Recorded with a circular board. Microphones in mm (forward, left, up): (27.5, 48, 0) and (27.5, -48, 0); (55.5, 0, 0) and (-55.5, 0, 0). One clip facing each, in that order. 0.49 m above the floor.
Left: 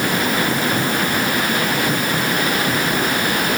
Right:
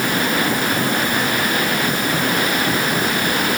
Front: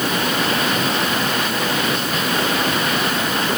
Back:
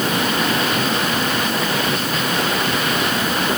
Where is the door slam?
No door slam in this recording.